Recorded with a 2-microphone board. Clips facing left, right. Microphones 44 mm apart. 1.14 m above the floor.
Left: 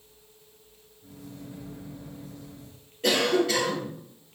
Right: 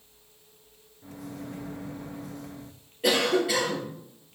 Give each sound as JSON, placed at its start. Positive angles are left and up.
{"t": 1.0, "sound": "a microwave", "side_deg": -80, "distance_m": 0.8}
{"t": 3.0, "sound": "a cough", "side_deg": -10, "distance_m": 2.5}